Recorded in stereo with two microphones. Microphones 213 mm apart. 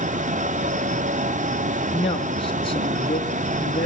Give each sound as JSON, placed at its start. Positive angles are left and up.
{"t": 1.9, "sound": "a man speaking", "side_deg": 25, "distance_m": 3.5}